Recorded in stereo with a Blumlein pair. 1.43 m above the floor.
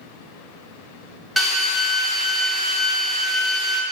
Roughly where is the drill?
Ahead.